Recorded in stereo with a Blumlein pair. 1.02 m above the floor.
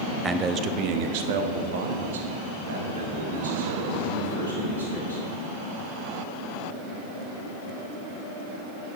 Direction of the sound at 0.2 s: 15° right.